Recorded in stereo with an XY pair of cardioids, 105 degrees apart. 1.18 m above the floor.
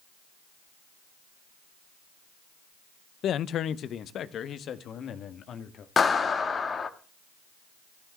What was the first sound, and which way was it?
A man speaking, 65° left.